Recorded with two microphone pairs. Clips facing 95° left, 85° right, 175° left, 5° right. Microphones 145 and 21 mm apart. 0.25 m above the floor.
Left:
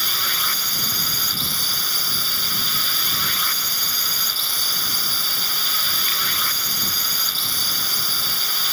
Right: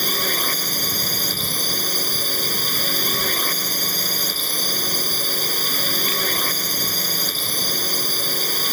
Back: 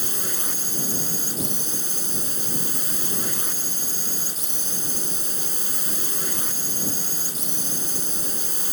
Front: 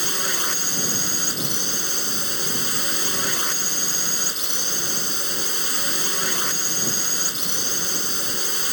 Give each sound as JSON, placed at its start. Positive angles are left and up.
{"t": 0.0, "sound": "a drone", "azimuth_deg": -55}